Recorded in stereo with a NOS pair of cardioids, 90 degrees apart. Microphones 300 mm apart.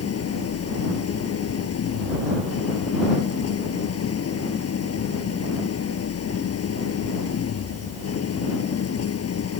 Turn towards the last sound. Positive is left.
turn(degrees=55)